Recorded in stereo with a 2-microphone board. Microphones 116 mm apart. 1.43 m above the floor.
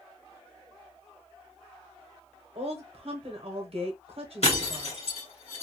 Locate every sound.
2.5 s a woman speaking: 60° right (ahead or behind), 0.9 m
4.4 s breaking glass: 65° left (ahead or behind), 1.7 m